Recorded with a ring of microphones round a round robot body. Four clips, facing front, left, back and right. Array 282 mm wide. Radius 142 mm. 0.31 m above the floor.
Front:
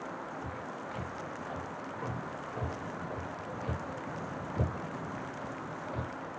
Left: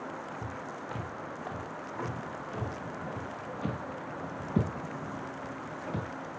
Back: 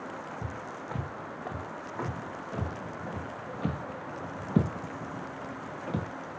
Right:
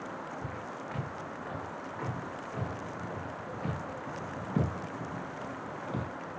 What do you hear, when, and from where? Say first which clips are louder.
0.4 s footsteps: even, back 1 dB; 160° left, 8 m; by 6.1 s 175° right, 9 m